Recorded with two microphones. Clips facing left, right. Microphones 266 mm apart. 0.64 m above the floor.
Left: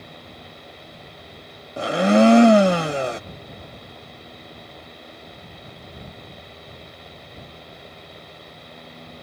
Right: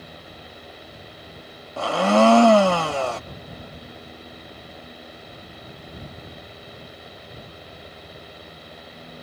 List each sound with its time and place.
1.8 s a blender: 20° left (ahead or behind)